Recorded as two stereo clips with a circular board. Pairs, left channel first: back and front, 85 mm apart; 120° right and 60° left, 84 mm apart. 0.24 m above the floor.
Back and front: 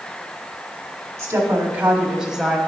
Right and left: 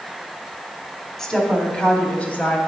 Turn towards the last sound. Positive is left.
turn(degrees=-90)